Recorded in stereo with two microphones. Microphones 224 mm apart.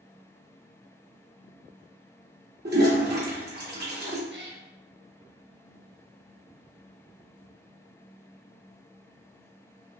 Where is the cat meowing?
50° right (ahead or behind), 0.5 m.